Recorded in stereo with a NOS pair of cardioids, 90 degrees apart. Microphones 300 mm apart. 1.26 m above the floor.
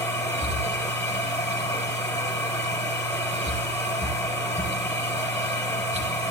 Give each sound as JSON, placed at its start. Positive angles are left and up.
{"t": 0.0, "sound": "a machine running", "azimuth_deg": 10, "distance_m": 4.0}